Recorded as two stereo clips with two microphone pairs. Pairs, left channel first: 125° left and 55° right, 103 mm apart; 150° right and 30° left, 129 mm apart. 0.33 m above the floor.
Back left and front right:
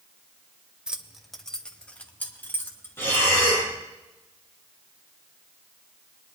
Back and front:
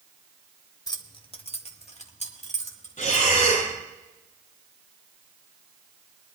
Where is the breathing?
165° right, 5 m.